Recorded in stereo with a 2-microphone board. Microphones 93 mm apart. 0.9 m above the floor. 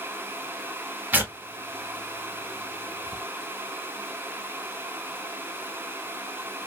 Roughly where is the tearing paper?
Centre.